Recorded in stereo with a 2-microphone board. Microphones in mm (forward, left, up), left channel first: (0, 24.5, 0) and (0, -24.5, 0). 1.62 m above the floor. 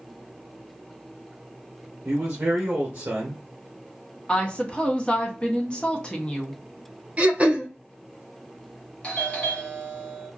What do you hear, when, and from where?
2.0 s a man speaking: 35° right (ahead or behind), 1.0 m
4.3 s a woman speaking: 20° left (ahead or behind), 1.0 m
7.2 s throat clearing: 30° right (ahead or behind), 0.8 m
9.0 s a doorbell: 25° left (ahead or behind), 1.3 m